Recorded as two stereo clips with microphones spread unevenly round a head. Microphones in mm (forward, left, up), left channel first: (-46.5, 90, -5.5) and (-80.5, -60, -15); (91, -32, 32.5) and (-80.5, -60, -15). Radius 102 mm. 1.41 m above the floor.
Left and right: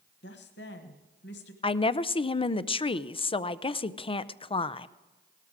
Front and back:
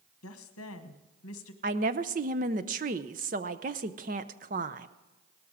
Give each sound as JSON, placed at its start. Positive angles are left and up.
{"t": 0.2, "sound": "a woman speaking", "azimuth_deg": 35, "distance_m": 1.3}
{"t": 1.6, "sound": "a woman speaking", "azimuth_deg": 135, "distance_m": 0.6}